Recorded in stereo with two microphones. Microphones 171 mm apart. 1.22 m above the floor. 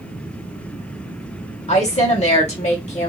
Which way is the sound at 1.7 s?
40° left (ahead or behind).